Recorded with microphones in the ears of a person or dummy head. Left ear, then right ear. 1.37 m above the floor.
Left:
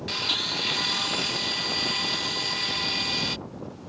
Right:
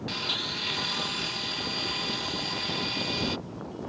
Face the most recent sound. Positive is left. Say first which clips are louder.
# left 4 dB
turn(degrees=15)  # may be behind; listen again after turning